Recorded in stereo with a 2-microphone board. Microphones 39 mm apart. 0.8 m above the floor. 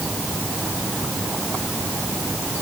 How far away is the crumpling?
No crumpling in this recording.